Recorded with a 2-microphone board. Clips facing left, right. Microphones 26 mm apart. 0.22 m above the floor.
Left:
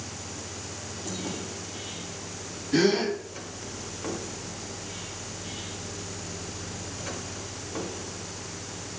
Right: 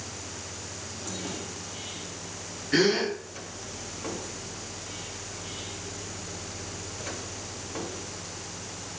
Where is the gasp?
55° right (ahead or behind), 1.6 m.